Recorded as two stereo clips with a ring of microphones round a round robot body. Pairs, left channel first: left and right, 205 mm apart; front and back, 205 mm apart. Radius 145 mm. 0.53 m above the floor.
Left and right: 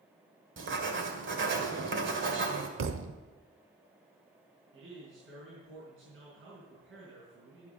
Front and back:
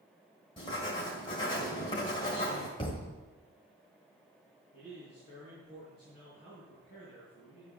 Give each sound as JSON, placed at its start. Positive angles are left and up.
{"t": 0.6, "sound": "writing", "azimuth_deg": -70, "distance_m": 1.9}
{"t": 2.8, "sound": "a thud", "azimuth_deg": -75, "distance_m": 0.9}
{"t": 4.7, "sound": "a man speaking", "azimuth_deg": -70, "distance_m": 5.0}